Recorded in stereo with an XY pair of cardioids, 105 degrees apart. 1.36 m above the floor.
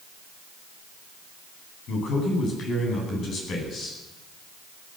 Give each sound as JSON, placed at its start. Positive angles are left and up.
{"t": 1.9, "sound": "a man speaking", "azimuth_deg": 65, "distance_m": 10.0}